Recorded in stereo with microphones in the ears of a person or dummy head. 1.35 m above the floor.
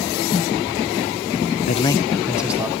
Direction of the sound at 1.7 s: 40° left (ahead or behind).